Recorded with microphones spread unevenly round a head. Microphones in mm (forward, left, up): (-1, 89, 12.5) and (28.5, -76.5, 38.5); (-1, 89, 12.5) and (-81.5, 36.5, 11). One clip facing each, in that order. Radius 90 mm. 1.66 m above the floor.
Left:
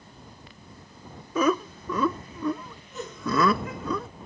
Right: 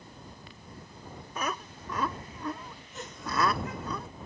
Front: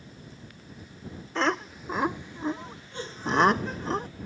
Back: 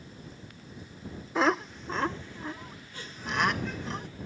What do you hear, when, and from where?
1.4 s laughter: 130° left; by 4.1 s 85° left